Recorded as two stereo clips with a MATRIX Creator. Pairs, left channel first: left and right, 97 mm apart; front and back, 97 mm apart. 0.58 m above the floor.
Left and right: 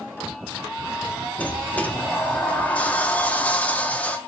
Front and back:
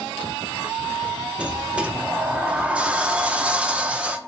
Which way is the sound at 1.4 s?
130° left.